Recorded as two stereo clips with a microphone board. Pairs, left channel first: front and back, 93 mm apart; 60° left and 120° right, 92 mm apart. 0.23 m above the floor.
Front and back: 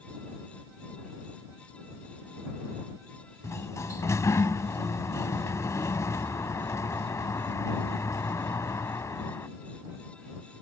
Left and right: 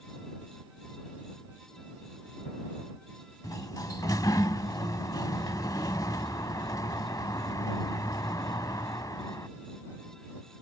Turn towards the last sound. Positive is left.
turn(degrees=40)